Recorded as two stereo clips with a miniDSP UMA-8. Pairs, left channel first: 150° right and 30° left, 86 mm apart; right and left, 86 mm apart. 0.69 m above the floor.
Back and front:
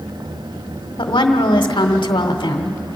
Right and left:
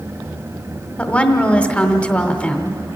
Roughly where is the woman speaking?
Behind.